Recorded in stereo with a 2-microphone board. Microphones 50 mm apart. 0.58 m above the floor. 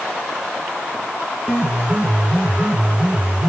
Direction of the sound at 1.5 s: 20° right (ahead or behind).